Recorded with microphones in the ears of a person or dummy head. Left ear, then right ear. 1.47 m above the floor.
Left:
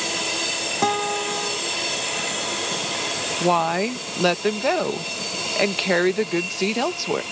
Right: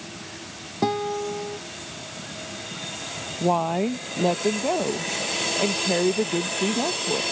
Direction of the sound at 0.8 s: 50° left (ahead or behind).